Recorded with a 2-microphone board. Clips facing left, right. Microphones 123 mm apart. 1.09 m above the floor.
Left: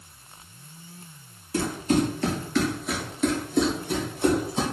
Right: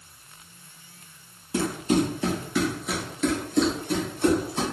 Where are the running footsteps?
20° right (ahead or behind), 1.5 m; by 4.6 s 20° left (ahead or behind), 1.8 m.